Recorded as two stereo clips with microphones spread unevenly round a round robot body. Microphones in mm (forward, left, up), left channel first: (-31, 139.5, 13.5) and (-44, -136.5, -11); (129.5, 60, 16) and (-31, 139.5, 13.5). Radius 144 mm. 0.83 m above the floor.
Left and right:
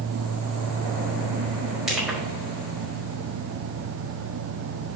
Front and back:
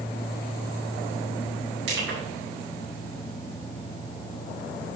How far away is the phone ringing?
I don't hear a phone ringing.